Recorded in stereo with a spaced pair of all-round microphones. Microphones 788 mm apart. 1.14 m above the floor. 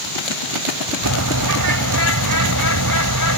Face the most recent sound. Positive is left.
turn(degrees=-25)  # may be behind; listen again after turning